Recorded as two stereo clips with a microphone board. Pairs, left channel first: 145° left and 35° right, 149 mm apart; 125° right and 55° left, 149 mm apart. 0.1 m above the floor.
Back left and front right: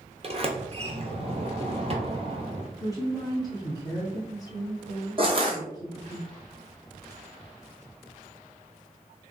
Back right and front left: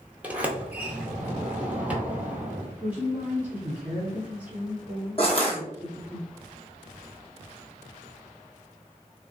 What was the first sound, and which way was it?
A sliding door, 20° right.